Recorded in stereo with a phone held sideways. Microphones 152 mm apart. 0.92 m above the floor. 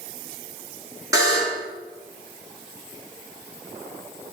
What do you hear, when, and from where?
1.1 s a buzzer: 20° right (ahead or behind), 4 m